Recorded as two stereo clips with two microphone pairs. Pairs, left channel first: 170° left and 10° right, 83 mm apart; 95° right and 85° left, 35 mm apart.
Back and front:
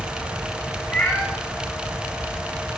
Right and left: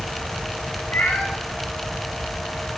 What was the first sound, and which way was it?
A cat meowing, 115° right.